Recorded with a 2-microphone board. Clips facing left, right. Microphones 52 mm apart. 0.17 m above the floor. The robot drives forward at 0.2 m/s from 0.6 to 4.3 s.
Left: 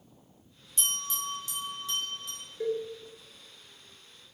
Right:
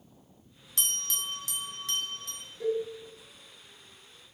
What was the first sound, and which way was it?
A bell, 65° right (ahead or behind).